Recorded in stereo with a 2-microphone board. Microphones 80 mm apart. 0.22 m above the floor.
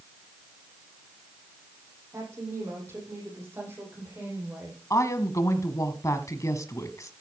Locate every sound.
2.1 s a woman speaking: 35° right (ahead or behind), 9 m; by 4.8 s 20° right (ahead or behind), 9 m
4.9 s a woman speaking: 40° left (ahead or behind), 1.4 m